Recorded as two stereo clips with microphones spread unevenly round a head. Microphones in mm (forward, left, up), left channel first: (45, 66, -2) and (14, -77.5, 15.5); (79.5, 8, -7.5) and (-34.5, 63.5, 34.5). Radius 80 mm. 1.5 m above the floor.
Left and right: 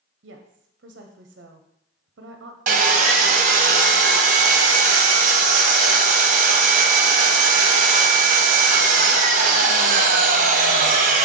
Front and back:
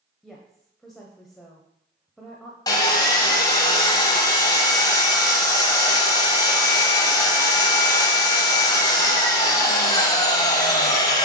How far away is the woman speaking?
About 0.7 m.